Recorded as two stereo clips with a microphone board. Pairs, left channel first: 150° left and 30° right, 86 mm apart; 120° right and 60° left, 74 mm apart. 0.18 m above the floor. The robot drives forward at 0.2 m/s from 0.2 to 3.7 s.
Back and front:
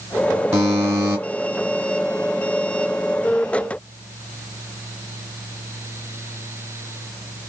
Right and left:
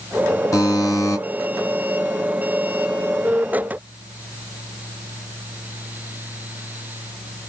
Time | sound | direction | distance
0.5 | a buzzer | 85° right | 2.5 m